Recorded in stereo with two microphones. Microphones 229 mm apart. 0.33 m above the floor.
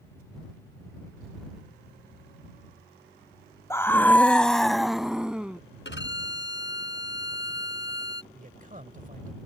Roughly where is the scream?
Centre.